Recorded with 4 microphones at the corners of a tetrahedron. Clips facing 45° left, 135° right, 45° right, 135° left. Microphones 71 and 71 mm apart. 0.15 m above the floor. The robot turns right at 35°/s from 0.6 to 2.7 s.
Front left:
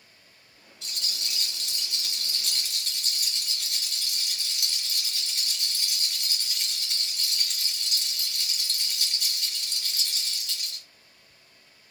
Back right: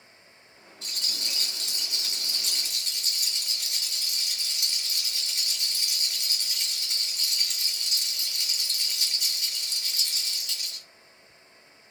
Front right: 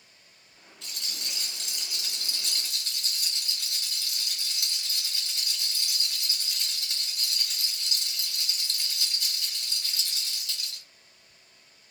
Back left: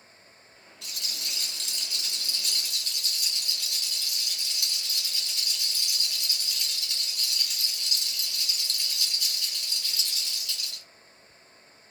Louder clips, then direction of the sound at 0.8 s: Even, even; 145° right.